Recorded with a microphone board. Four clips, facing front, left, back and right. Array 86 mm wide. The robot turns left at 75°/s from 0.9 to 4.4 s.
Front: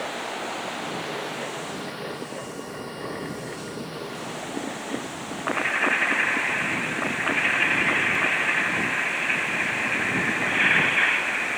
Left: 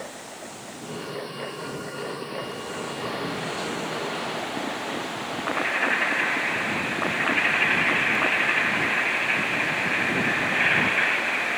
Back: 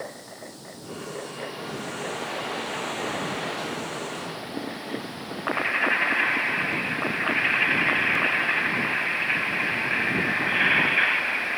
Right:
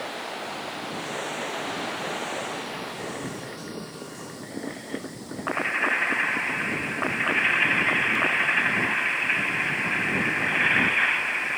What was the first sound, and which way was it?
Running water, 25° right.